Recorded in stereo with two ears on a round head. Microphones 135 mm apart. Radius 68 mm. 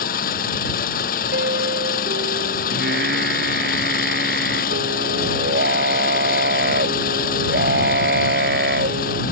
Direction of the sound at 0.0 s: 65° left (ahead or behind).